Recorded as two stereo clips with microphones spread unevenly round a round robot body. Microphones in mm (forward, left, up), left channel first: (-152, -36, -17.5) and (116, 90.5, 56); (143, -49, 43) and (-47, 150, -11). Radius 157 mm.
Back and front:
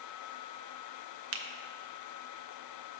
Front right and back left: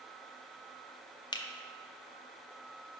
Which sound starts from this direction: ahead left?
A finger snap, at 1.3 s.